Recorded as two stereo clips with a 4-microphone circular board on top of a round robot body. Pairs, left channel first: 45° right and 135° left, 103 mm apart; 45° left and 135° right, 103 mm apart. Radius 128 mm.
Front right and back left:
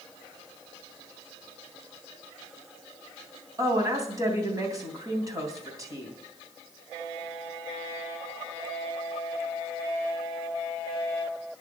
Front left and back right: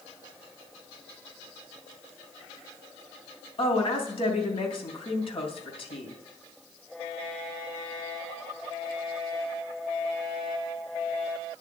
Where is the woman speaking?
75° left, 3 m.